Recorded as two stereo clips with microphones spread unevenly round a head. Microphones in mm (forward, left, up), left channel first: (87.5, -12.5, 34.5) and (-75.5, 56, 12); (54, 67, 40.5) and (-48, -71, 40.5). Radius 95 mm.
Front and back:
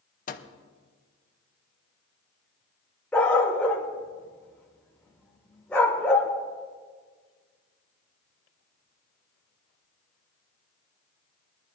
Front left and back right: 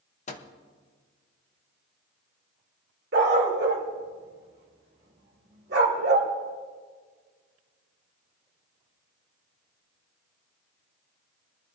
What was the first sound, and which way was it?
A microwave, 5° left.